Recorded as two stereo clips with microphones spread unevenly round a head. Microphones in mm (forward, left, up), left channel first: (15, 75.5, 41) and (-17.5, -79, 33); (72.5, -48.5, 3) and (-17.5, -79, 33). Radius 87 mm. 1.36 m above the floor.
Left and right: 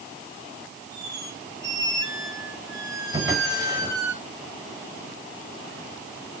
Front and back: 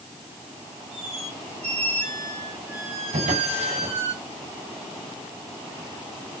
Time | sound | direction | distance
0.9 | a squeak | 170° right | 7 m
3.1 | a drawer | 170° right | 5 m